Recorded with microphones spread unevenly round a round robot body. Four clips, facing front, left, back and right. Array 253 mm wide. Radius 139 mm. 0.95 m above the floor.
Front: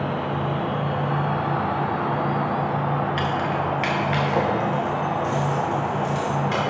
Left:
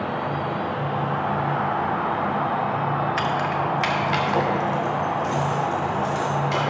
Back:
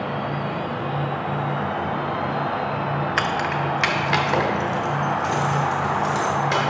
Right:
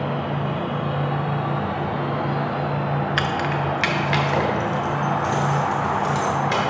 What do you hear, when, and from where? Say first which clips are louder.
3.2 s keys jangling: even, back 1 dB; 155° right, 0.6 m; by 6.6 s 140° right, 3 m